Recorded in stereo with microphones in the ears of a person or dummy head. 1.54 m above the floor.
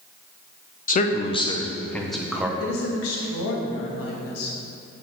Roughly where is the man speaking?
Left.